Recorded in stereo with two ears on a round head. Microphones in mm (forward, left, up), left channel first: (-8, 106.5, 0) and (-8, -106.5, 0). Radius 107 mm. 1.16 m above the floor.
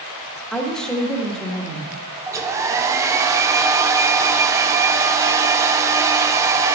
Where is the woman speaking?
5° left (ahead or behind), 1.3 m.